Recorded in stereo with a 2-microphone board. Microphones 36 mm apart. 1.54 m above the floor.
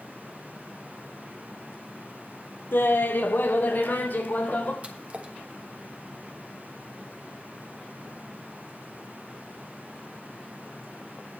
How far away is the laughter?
About 0.7 m.